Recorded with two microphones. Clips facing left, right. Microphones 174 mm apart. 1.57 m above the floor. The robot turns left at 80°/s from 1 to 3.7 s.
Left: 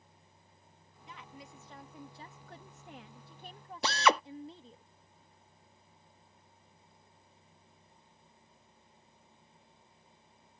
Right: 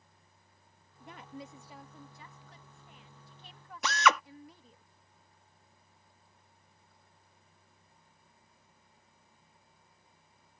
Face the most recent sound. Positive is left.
turn(degrees=30)  # may be behind; listen again after turning